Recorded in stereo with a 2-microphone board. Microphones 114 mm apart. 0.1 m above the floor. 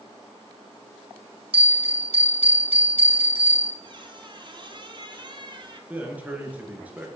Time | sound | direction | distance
1.5 | a bell | 55° right (ahead or behind) | 1.8 m
3.8 | a squeak | 45° right (ahead or behind) | 0.7 m
5.9 | a man speaking | 15° right (ahead or behind) | 1.3 m